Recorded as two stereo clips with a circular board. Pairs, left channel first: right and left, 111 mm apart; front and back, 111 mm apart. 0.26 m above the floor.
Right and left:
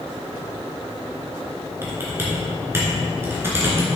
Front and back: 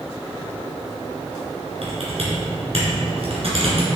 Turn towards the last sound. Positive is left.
turn(degrees=155)